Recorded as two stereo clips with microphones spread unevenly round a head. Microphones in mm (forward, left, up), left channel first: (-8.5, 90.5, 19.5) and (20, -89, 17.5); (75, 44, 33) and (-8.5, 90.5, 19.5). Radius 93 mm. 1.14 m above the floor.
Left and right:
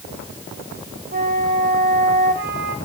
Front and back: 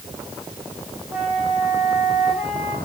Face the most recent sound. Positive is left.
turn(degrees=-125)